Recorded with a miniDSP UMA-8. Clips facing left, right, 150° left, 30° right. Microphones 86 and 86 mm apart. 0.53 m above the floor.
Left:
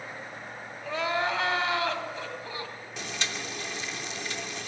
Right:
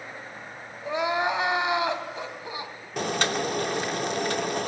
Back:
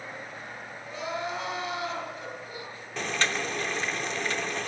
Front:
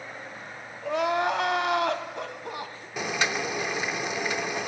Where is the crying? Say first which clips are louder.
Right 3 dB, front 9 dB; 20° right, 3.5 m.